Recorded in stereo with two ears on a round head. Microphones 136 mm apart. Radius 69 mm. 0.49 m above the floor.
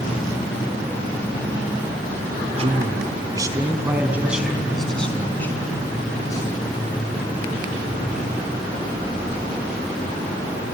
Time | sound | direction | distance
2.5 | a man speaking | 40° right (ahead or behind) | 3.5 m